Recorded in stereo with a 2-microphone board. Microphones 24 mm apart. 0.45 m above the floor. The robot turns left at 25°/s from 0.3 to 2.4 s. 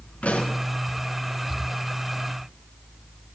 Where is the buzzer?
No buzzer in this recording.